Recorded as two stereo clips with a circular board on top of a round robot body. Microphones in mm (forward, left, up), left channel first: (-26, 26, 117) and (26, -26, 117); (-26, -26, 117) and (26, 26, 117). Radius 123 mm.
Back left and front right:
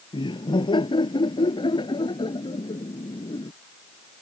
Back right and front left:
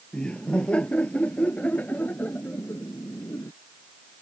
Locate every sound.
0.1 s laughter: 145° left; by 3.5 s 160° left